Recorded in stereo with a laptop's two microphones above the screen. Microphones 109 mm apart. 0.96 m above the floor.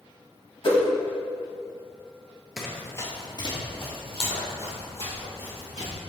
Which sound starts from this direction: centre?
Running footsteps, at 2.6 s.